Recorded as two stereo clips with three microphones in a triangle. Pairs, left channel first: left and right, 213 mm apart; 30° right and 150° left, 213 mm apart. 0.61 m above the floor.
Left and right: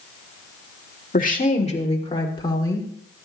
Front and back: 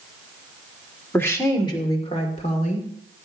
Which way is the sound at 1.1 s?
50° left.